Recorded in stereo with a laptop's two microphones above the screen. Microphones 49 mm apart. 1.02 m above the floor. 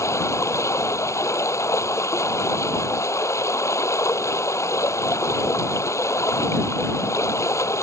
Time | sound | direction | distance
0.0 | running water | 90° left | ?